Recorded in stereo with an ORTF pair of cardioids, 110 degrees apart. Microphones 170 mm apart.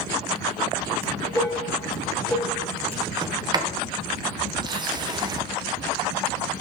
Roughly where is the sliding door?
Ahead right.